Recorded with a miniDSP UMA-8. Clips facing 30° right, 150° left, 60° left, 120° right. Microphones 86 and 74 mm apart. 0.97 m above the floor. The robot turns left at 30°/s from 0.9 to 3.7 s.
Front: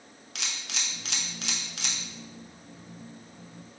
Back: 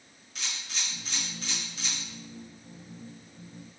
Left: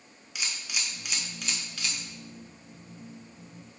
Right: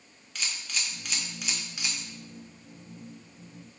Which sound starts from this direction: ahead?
A camera shutter, at 0.3 s.